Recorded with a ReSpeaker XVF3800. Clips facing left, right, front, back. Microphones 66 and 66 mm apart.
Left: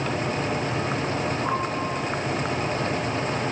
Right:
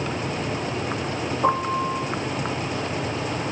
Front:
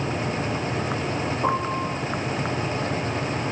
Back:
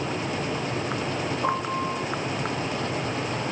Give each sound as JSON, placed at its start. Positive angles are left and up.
{"t": 1.4, "sound": "a piano", "azimuth_deg": -75, "distance_m": 8.5}